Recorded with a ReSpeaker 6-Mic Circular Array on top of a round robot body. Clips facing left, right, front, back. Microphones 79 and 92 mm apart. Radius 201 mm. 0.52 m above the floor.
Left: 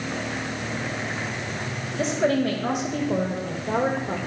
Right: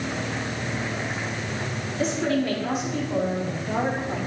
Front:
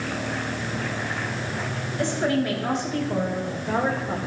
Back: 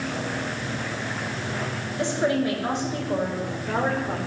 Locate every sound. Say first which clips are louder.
2.0 s a woman speaking: left 2 dB, even; 110° left, 4 m; by 4.2 s 100° left, 2.5 m